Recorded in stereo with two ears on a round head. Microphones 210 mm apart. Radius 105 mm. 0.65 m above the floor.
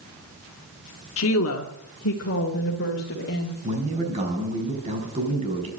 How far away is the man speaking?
About 5 m.